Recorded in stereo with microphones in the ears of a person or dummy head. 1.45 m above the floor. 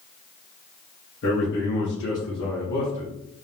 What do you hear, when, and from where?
1.2 s a man speaking: 50° left (ahead or behind), 0.8 m